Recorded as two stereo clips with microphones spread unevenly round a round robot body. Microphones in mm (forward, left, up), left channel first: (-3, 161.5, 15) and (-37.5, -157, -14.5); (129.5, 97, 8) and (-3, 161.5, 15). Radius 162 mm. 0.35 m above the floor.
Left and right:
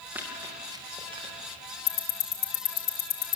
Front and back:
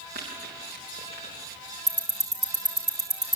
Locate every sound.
0.1 s running footsteps: straight behind, 6 m; by 1.6 s 170° right, 7.5 m
1.9 s ticking: 120° left, 3 m